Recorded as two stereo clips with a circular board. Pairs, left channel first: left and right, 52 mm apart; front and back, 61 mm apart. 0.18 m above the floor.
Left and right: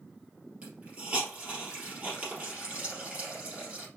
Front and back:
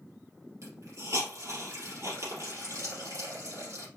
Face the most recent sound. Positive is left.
turn(degrees=-155)